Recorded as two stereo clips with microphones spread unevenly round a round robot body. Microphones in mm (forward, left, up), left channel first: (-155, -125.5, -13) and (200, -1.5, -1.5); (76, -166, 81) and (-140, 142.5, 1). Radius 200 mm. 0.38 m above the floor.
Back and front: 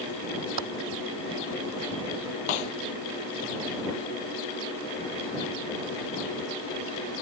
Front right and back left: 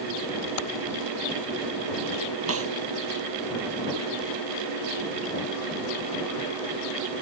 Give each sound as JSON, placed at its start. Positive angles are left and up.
{"t": 0.6, "sound": "typing on a keyboard", "azimuth_deg": -10}
{"t": 2.5, "sound": "a snare drum", "azimuth_deg": 180}